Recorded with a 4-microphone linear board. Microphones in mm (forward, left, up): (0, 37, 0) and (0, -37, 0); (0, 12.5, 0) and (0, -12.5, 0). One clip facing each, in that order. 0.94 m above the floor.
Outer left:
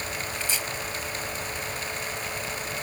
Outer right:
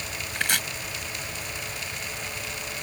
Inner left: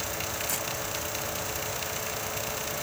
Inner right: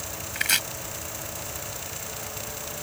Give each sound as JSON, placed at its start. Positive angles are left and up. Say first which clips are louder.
{"t": 0.3, "sound": "chopping", "louder": "outer right 8 dB, inner right 8 dB", "side_deg": -65}